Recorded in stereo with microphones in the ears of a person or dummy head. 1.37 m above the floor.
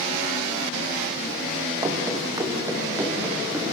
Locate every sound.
1.8 s running footsteps: 15° right (ahead or behind), 2.5 m; by 3.6 s 5° right (ahead or behind), 4 m